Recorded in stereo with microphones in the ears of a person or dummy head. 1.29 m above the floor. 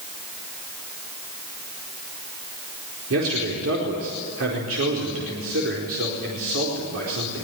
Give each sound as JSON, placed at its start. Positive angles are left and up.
{"t": 3.1, "sound": "a man speaking", "side_deg": -80, "distance_m": 4.5}